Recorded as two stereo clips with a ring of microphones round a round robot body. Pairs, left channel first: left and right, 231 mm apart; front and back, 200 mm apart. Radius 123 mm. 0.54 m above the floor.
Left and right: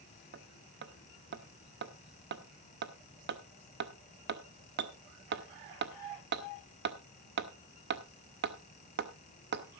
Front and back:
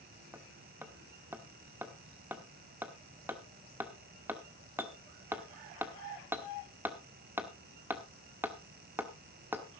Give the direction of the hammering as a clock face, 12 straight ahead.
3 o'clock.